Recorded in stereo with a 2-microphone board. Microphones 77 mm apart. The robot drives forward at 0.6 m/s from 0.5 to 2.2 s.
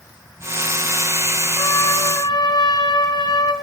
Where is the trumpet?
75° left (ahead or behind), 1.8 m; by 3.5 s 65° left (ahead or behind), 1.9 m.